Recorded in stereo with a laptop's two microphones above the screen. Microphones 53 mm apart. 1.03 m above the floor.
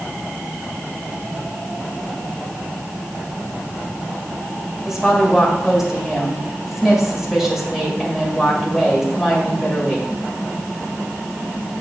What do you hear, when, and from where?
4.8 s a woman speaking: 10° right (ahead or behind), 2.0 m